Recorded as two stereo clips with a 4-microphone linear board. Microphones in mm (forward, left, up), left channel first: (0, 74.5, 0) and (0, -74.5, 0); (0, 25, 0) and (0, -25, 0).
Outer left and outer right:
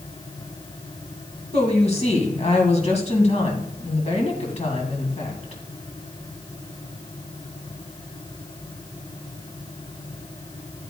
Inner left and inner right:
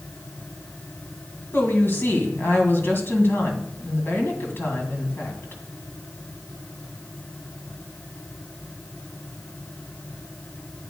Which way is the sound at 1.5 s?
50° left (ahead or behind).